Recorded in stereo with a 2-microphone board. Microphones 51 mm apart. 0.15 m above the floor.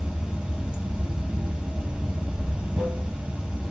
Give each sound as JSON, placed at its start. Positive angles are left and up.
{"t": 0.0, "sound": "running water", "side_deg": -25, "distance_m": 0.8}